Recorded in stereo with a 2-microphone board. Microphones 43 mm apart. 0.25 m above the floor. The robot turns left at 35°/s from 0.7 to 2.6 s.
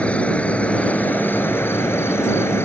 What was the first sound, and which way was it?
An insect, 150° left.